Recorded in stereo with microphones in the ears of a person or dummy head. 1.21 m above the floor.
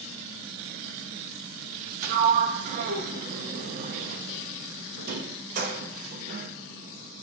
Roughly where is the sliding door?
Right.